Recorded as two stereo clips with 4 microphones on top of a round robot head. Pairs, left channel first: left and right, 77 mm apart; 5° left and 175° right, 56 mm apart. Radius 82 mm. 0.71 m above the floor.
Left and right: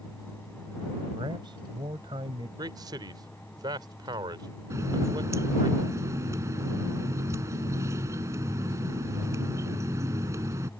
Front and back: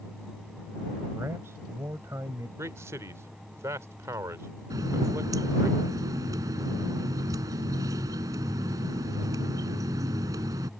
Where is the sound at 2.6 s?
130° right.